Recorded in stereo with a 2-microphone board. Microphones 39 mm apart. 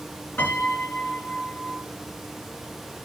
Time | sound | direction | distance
0.4 | a piano | 70° left (ahead or behind) | 3 m